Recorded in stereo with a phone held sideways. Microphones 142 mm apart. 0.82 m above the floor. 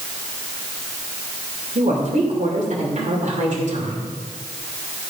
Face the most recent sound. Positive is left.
turn(degrees=-60)  # may be behind; listen again after turning